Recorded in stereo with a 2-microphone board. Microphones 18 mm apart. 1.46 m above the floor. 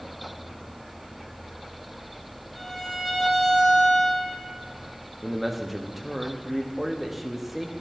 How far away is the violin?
About 4.5 m.